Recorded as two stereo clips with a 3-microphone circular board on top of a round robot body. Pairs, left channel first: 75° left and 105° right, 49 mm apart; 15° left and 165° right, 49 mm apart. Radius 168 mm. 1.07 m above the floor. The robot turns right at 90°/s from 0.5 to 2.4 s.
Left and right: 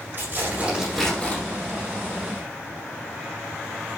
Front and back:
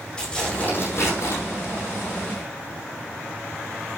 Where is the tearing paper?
55° right, 8.5 m; by 1.4 s 25° left, 8.5 m.